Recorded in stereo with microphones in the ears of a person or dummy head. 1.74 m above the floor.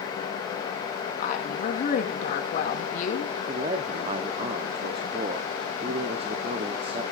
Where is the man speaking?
35° right (ahead or behind), 1.1 m.